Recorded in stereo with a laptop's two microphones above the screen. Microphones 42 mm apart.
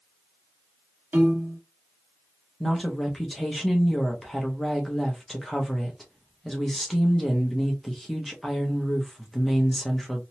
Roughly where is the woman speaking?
Centre.